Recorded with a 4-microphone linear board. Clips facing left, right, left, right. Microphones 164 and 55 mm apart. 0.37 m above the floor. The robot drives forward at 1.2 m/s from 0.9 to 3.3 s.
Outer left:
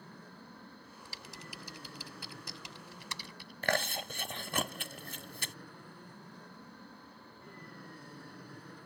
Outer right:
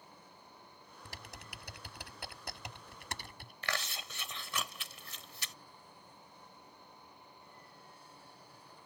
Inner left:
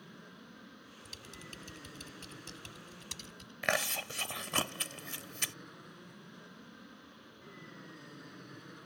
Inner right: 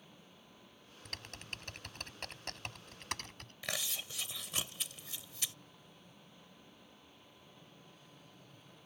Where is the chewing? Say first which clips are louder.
Outer left 8 dB, inner left 9 dB; 55° left (ahead or behind).